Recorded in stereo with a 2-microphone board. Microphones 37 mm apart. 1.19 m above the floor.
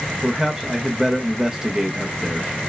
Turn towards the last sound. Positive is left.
turn(degrees=-15)  # may be behind; listen again after turning